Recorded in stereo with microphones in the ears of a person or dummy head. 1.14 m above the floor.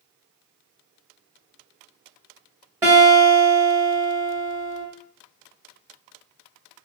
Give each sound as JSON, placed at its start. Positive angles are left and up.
{"t": 2.8, "sound": "a guitar", "side_deg": -10, "distance_m": 1.0}